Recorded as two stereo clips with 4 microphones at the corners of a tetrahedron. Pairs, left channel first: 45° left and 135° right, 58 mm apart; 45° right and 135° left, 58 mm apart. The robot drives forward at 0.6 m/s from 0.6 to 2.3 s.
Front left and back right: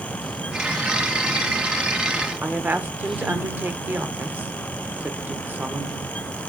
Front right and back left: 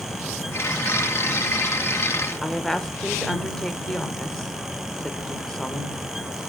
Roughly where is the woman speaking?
Behind right.